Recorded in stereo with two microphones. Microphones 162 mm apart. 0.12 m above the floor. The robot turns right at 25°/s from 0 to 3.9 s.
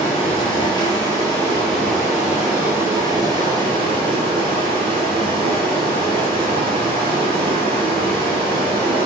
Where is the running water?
130° left, 1.2 m; by 9.1 s 135° right, 1.2 m.